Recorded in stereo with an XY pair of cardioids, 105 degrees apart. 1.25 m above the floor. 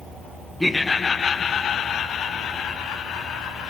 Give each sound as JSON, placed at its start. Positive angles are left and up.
{"t": 0.6, "sound": "laughter", "azimuth_deg": 5, "distance_m": 0.5}